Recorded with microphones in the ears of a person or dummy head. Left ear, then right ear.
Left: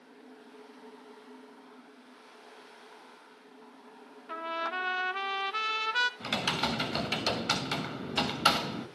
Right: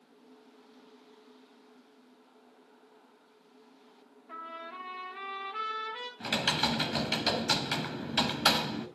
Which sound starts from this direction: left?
A trumpet, at 4.3 s.